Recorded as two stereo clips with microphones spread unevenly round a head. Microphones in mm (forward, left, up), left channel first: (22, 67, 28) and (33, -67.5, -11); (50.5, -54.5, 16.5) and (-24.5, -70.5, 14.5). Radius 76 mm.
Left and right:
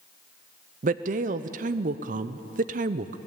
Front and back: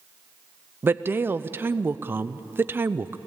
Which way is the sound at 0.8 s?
105° right.